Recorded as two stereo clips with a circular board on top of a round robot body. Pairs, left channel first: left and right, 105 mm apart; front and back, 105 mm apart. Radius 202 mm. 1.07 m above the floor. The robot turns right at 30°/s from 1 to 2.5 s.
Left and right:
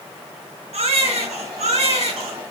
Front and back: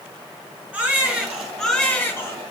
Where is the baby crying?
105° right, 5.5 m; by 2.4 s 65° right, 5.5 m.